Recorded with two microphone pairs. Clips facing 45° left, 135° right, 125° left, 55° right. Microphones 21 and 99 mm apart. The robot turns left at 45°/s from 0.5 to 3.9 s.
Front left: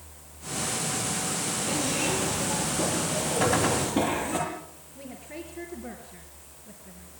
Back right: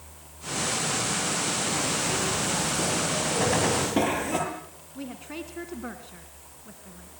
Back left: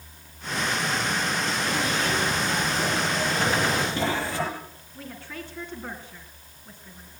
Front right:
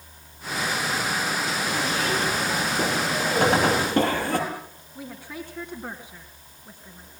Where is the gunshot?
40° right, 2 m; by 4.0 s 65° right, 2 m.